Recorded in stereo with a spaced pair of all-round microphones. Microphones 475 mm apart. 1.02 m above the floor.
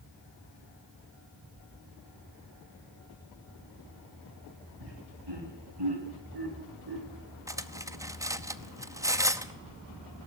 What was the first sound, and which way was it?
Laughter, 60° right (ahead or behind).